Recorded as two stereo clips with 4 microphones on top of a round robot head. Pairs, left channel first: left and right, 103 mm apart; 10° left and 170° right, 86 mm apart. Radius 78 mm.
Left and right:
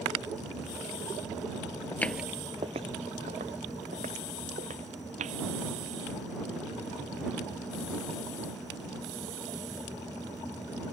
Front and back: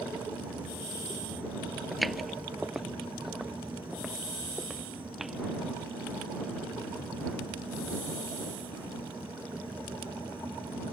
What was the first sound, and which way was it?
Footsteps, 100° left.